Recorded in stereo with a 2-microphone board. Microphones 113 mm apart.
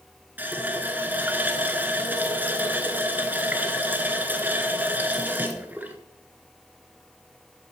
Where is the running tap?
15° right (ahead or behind), 0.8 m.